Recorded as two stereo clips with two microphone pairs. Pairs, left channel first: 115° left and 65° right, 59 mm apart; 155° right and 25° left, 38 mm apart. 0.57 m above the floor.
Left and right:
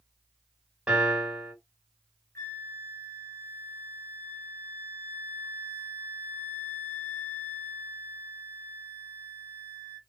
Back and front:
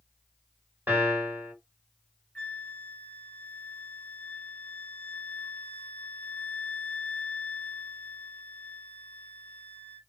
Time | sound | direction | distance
0.9 | a piano | 10° left | 1.8 m
2.4 | a flute | 155° left | 0.7 m